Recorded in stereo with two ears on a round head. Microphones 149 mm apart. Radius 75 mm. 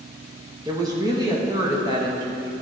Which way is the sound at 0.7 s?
25° right (ahead or behind).